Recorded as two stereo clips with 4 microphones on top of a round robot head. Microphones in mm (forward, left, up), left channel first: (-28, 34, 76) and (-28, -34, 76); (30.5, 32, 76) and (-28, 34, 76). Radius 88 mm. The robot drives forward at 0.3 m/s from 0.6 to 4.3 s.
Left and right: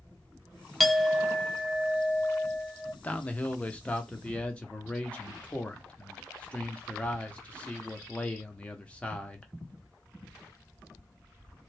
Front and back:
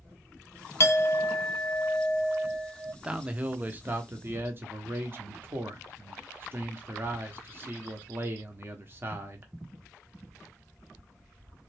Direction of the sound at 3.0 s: 125° left.